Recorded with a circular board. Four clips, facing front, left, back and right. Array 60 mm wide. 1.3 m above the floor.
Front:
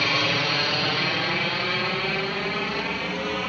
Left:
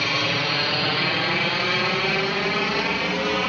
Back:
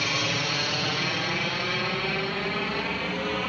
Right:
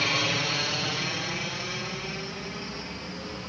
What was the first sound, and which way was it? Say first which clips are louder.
A helicopter: left 4 dB, front 4 dB; 30° left.